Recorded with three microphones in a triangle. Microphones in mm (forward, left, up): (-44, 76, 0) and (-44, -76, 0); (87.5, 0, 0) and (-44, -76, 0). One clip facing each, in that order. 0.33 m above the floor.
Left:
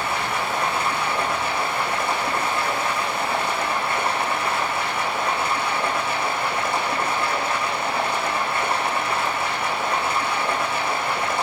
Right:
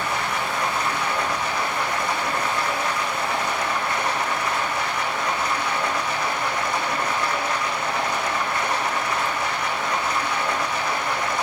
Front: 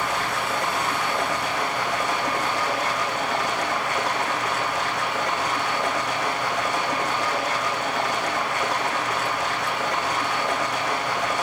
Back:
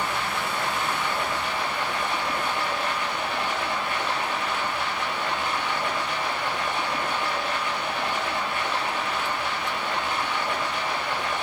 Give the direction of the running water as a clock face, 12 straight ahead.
11 o'clock.